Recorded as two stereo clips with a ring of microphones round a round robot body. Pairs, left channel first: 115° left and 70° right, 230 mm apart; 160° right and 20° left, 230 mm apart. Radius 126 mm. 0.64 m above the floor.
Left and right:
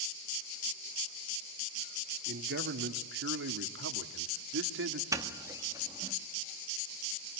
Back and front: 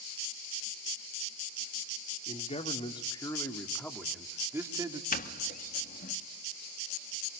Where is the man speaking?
100° right, 2 m; by 5.0 s 45° right, 1.8 m.